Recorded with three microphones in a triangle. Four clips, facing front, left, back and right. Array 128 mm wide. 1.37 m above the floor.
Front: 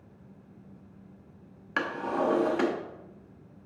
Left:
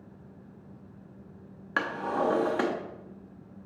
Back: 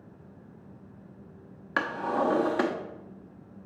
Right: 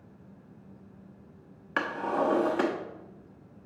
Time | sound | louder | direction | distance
1.8 | a drawer | even, back 1 dB | 160° left | 0.8 m